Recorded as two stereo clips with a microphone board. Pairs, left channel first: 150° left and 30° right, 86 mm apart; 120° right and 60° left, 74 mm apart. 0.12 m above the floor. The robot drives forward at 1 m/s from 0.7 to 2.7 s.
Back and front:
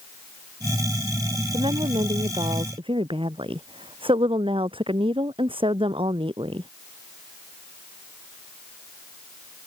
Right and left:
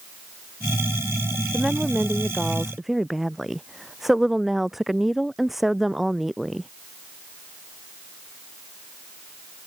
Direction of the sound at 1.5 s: 25° right.